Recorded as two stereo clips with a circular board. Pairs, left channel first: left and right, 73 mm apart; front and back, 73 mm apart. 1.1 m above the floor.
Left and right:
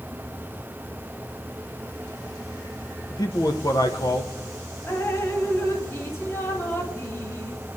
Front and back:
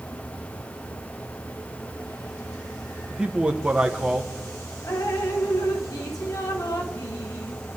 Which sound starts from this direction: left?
A man speaking, at 3.1 s.